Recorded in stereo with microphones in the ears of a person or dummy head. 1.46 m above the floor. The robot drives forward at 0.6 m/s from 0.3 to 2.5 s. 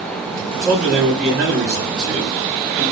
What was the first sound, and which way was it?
A man speaking, 5° right (ahead or behind).